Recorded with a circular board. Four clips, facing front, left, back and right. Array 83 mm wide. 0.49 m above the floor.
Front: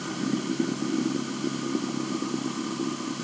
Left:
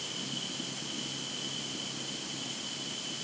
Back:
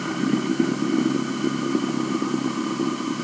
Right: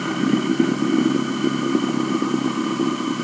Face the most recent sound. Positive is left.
turn(degrees=-105)